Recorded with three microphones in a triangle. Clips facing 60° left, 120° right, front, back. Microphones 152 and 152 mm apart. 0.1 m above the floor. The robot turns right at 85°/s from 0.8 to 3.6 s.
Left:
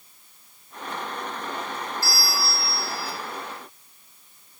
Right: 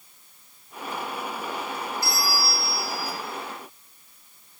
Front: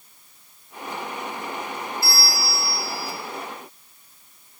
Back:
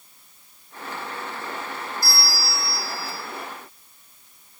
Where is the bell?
Straight behind, 1.4 m; by 3.1 s 90° right, 1.4 m.